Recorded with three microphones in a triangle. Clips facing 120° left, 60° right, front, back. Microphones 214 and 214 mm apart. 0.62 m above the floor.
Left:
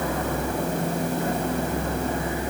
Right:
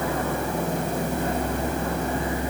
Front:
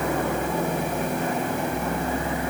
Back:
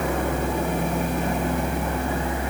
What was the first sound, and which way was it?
Only background noise.